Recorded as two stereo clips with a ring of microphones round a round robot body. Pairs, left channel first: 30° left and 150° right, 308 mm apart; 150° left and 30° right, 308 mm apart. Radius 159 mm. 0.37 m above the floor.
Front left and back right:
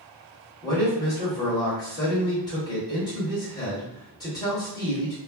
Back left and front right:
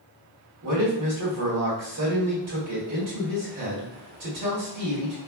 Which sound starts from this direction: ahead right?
A man speaking, at 0.6 s.